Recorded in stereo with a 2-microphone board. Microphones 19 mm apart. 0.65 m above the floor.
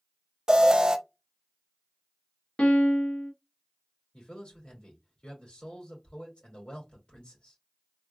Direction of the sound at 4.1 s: 65° left (ahead or behind).